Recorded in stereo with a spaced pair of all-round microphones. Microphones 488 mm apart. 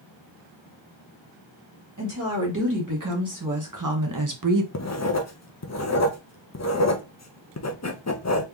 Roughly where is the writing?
Left.